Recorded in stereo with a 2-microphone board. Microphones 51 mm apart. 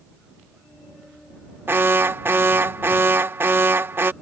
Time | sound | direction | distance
1.7 | an alarm | 45° right (ahead or behind) | ?